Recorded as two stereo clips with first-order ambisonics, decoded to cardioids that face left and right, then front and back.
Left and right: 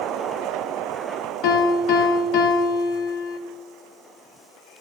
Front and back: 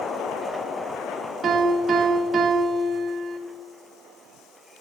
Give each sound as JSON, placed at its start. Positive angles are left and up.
{"t": 1.4, "sound": "a piano", "azimuth_deg": 110, "distance_m": 0.8}